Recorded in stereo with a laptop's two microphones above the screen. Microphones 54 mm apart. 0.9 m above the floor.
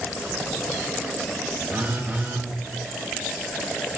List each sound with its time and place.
1.7 s a phone buzzing: 45° right (ahead or behind), 1.5 m